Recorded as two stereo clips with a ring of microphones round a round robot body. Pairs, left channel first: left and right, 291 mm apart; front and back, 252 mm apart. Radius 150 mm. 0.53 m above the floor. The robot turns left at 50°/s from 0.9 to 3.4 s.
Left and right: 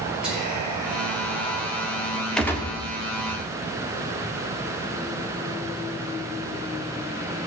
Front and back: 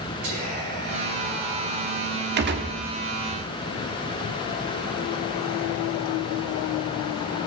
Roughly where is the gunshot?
Behind.